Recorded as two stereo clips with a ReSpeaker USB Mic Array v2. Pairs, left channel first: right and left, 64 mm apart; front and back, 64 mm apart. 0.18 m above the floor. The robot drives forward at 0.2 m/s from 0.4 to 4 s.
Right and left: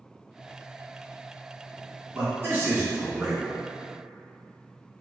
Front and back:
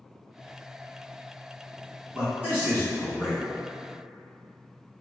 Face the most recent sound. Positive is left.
turn(degrees=145)